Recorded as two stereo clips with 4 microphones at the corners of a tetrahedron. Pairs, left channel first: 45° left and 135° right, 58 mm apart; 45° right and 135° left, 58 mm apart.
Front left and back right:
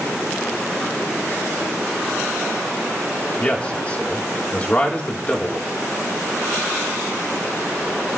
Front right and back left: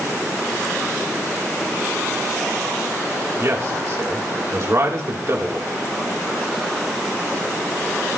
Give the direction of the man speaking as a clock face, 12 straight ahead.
8 o'clock.